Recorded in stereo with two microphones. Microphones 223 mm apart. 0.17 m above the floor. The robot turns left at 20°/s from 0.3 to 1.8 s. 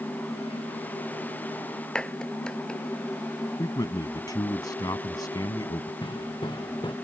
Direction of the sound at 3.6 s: 20° left (ahead or behind).